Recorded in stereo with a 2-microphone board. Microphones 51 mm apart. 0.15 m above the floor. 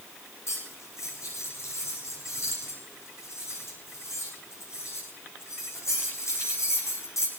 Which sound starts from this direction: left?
Cutlery clinking, at 0.5 s.